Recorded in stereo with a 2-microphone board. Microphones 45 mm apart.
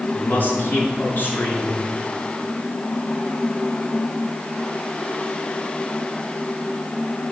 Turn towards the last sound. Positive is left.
turn(degrees=45)  # may be behind; listen again after turning